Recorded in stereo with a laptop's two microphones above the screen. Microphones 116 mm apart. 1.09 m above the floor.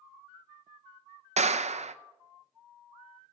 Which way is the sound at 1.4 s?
70° right (ahead or behind).